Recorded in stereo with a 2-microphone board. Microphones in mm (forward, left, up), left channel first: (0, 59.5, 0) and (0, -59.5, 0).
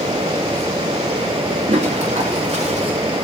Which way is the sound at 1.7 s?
70° right (ahead or behind).